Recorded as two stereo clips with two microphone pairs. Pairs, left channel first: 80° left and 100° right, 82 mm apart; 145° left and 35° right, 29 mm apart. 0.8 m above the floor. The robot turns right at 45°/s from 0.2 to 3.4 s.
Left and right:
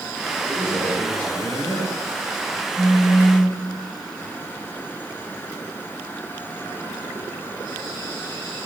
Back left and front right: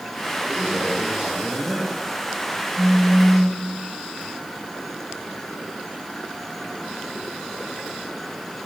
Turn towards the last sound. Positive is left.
turn(degrees=60)